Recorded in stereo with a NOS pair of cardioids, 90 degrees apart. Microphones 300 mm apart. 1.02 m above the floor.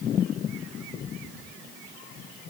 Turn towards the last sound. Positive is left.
No sound to turn to.